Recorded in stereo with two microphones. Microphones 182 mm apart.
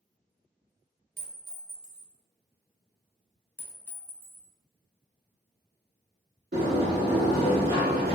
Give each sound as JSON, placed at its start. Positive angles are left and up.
{"t": 1.2, "sound": "a clink", "side_deg": -65, "distance_m": 1.9}
{"t": 3.6, "sound": "a clink", "side_deg": 10, "distance_m": 0.6}
{"t": 6.5, "sound": "a sliding door", "side_deg": -65, "distance_m": 1.4}